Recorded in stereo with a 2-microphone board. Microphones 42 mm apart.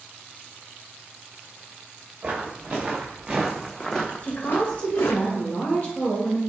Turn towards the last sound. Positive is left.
turn(degrees=30)  # may be behind; listen again after turning